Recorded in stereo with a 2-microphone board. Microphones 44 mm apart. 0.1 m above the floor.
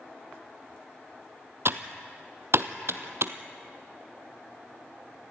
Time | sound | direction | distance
1.6 | typing on a keyboard | 65° right (ahead or behind) | 0.8 m